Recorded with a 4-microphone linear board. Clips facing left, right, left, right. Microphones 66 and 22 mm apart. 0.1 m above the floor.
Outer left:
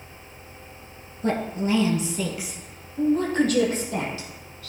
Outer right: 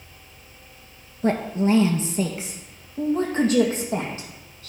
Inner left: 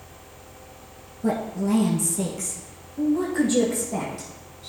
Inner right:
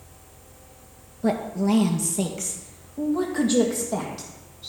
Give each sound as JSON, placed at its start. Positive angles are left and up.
{"t": 1.2, "sound": "a woman speaking", "side_deg": -30, "distance_m": 1.7}